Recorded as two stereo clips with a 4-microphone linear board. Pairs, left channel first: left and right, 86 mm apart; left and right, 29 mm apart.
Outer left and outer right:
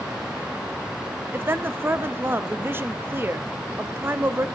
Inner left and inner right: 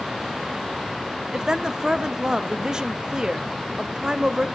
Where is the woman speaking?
25° right (ahead or behind), 0.6 m.